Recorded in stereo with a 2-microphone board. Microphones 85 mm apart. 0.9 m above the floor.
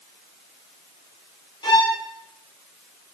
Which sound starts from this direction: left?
A violin, at 1.6 s.